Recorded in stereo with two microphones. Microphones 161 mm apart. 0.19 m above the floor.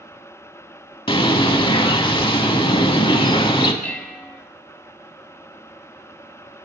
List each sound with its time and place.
1.1 s a bird: 30° left (ahead or behind), 0.6 m
3.8 s dishes clattering: 10° left (ahead or behind), 0.7 m